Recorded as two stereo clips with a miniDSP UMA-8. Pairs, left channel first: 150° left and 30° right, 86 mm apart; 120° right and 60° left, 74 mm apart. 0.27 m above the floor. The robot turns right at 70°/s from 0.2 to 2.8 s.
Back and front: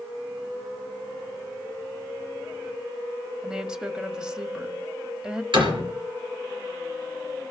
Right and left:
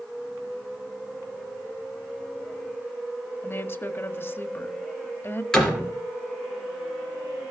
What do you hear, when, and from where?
3.4 s a woman speaking: 100° right, 1.2 m
5.5 s a door slam: 40° right, 3.5 m